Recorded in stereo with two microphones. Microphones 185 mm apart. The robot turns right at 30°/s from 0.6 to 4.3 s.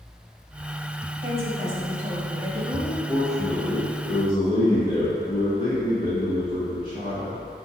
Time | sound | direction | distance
1.2 | a woman speaking | 75° right | 1.5 m
3.1 | a man speaking | straight ahead | 2 m